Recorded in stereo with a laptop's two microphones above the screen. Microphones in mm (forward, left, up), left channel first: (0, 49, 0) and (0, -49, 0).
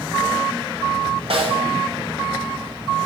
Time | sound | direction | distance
1.3 | a snare drum | 70° right (ahead or behind) | 1.6 m